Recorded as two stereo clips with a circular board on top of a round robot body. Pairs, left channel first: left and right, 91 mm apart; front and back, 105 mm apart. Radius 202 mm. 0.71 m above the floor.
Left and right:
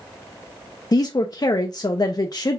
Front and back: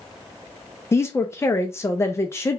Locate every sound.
0.9 s a woman speaking: 60° left, 0.7 m